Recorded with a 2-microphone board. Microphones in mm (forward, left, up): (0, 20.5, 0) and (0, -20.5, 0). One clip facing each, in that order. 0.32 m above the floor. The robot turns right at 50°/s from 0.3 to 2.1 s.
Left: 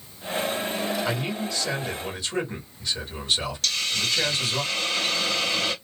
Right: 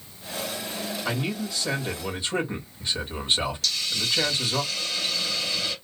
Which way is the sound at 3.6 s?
55° left (ahead or behind).